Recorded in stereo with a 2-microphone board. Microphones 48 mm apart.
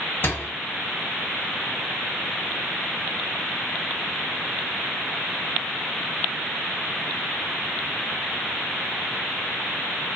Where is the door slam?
45° left (ahead or behind), 0.8 m.